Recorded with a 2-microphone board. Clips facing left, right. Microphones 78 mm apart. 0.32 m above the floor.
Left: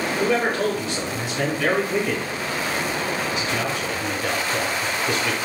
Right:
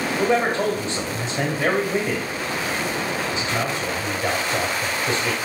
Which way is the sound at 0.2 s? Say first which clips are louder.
Right 1 dB; 25° right (ahead or behind).